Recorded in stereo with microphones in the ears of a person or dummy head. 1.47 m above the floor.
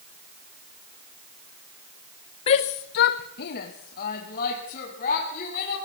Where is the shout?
35° left (ahead or behind), 0.6 m; by 5.8 s 45° left (ahead or behind), 4.5 m.